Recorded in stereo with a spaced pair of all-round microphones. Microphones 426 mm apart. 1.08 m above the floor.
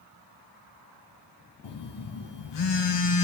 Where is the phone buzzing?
75° left (ahead or behind), 0.5 m.